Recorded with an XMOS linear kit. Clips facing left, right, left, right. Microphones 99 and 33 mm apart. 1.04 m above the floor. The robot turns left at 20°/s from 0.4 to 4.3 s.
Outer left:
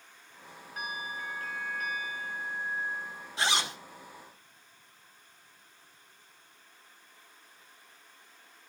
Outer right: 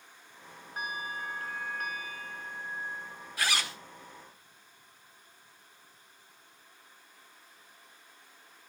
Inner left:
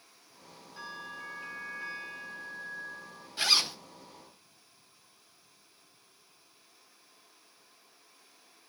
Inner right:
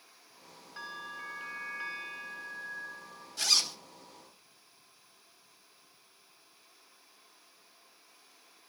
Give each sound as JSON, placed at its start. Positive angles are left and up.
{"t": 0.8, "sound": "a bell", "azimuth_deg": -30, "distance_m": 6.5}
{"t": 3.4, "sound": "a zipper", "side_deg": 25, "distance_m": 0.9}